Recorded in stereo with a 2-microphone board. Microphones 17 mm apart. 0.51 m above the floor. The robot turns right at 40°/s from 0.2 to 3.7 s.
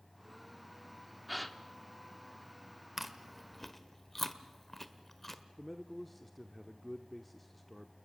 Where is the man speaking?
5° left (ahead or behind), 0.9 m.